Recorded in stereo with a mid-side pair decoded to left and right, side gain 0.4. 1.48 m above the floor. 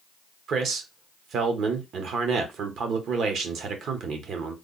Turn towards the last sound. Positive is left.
turn(degrees=-70)